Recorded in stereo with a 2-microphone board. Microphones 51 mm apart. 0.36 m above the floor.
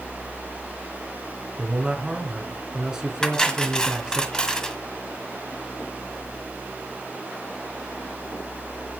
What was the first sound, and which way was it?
A man speaking, 10° right (ahead or behind).